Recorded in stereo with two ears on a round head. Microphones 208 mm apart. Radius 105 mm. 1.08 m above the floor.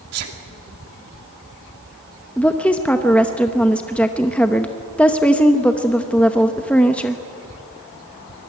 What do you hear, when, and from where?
0.1 s a sneeze: 80° right, 2.5 m
2.4 s a woman speaking: 5° left (ahead or behind), 0.9 m